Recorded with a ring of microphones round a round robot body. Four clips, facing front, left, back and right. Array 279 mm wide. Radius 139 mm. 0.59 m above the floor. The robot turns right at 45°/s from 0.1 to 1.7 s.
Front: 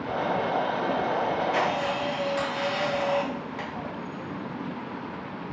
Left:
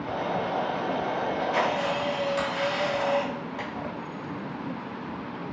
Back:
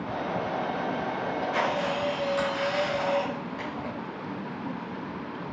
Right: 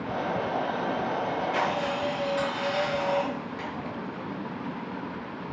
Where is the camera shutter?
30° left, 2.5 m; by 3.9 s 55° left, 2.5 m.